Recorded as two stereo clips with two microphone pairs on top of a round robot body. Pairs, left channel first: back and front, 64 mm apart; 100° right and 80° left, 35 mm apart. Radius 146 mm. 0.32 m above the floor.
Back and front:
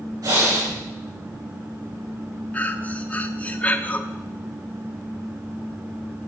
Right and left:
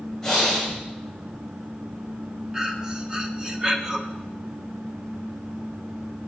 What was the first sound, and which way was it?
Breathing, 15° right.